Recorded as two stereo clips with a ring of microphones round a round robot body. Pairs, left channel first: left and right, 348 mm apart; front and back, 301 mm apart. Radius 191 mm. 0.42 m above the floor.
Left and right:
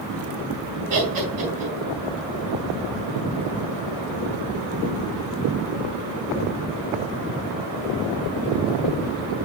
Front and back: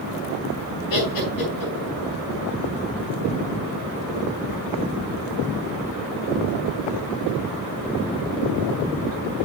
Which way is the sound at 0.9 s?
60° right.